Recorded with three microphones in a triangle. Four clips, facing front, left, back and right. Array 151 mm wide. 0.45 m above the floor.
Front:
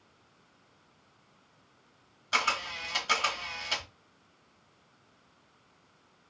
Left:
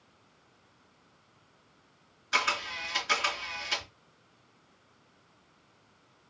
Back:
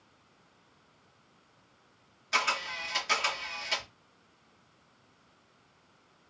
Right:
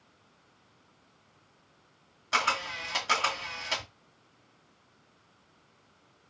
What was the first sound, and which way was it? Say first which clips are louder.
A camera shutter: right 2 dB, even; 75° right.